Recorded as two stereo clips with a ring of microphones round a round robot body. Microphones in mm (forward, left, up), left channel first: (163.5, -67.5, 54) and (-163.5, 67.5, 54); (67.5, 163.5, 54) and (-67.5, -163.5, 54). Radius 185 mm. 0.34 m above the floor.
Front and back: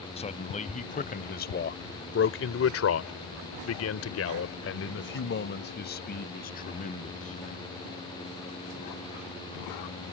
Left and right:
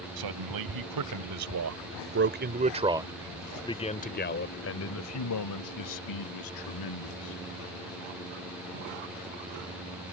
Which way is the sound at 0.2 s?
95° right.